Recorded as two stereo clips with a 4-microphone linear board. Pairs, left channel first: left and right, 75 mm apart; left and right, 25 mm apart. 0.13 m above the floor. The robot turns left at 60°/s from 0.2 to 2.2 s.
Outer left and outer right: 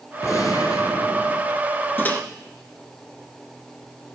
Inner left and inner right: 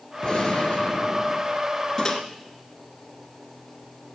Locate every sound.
0.2 s a gunshot: 130° left, 2.5 m; by 1.5 s 55° left, 2.5 m
2.0 s a microwave: 30° left (ahead or behind), 1.4 m; by 2.2 s 20° left (ahead or behind), 1.4 m